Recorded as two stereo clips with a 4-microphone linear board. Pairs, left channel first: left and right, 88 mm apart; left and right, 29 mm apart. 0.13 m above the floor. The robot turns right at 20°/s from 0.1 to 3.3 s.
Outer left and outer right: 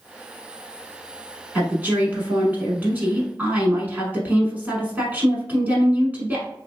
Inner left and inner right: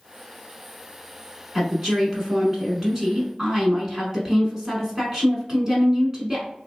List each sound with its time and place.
1.6 s a woman speaking: 20° right (ahead or behind), 1.0 m